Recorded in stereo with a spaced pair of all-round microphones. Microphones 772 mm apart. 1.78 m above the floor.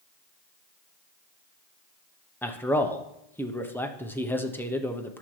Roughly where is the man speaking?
Centre.